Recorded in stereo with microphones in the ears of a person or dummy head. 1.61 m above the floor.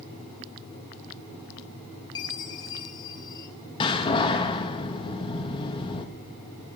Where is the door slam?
25° left (ahead or behind), 1.2 m.